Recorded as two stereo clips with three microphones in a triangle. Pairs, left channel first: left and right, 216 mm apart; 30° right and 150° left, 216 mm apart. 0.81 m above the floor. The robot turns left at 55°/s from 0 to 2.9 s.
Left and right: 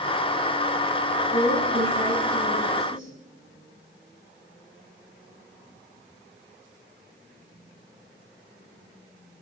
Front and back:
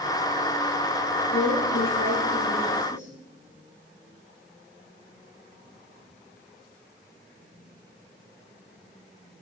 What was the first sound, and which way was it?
A woman speaking, 5° left.